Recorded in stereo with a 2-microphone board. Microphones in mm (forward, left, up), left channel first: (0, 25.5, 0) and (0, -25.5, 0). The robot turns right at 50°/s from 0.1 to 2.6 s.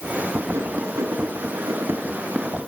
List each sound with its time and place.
0.5 s writing: 55° right (ahead or behind), 3 m; by 2.7 s 20° right (ahead or behind), 3 m